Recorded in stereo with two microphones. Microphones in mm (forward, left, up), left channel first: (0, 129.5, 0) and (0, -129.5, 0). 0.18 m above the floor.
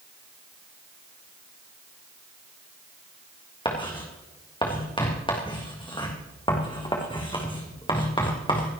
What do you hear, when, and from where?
3.6 s writing: 20° left (ahead or behind), 3 m